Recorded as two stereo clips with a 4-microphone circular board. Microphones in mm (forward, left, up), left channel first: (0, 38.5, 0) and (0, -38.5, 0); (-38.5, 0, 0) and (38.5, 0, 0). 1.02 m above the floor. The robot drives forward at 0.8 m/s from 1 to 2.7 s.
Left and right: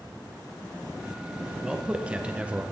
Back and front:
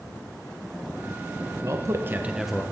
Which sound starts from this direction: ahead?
A man speaking, at 1.6 s.